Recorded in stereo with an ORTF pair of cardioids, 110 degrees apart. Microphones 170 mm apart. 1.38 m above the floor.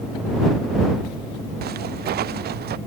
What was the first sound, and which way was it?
Footsteps, 60° right.